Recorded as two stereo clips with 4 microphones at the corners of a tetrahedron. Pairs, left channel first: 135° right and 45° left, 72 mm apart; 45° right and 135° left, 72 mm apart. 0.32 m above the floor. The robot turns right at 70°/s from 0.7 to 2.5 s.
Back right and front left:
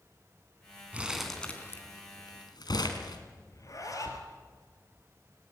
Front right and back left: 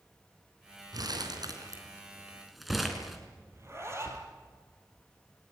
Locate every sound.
0.9 s crumpling: 115° left, 3.5 m; by 3.2 s 135° right, 3.5 m
3.5 s a zipper: 175° right, 4.5 m